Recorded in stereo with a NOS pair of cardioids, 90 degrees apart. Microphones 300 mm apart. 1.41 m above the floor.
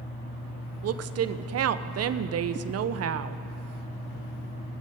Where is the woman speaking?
55° right, 0.8 m.